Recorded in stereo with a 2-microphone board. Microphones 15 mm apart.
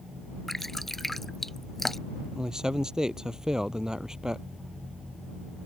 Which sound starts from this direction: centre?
Dripping, at 0.5 s.